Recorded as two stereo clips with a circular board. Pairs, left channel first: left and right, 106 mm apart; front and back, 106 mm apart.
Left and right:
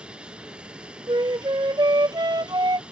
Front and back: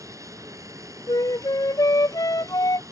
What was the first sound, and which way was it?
An aircraft, 160° right.